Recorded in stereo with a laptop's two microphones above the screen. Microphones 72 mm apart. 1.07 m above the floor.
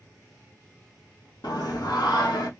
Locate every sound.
1.4 s singing: 80° left, 0.9 m